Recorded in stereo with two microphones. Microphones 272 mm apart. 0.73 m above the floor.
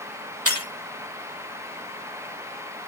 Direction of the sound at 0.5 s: 55° right (ahead or behind).